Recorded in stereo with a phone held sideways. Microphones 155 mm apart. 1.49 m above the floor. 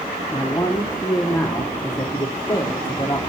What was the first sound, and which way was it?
A man speaking, 20° left (ahead or behind).